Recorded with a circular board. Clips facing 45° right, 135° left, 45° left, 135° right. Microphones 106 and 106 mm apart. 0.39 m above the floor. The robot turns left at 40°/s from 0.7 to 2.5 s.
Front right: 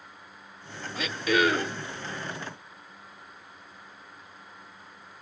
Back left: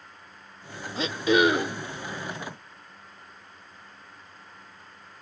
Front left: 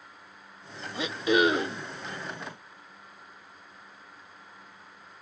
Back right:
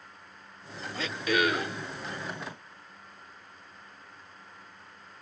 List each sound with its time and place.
1.0 s throat clearing: 100° left, 0.9 m; by 1.8 s 65° left, 0.9 m